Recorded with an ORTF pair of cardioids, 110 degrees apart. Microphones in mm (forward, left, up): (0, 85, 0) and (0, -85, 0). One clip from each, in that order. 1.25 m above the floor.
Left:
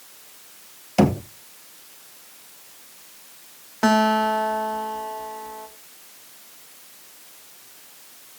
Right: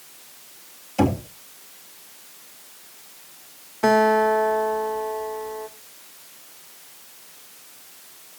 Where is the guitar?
50° left, 2.0 m.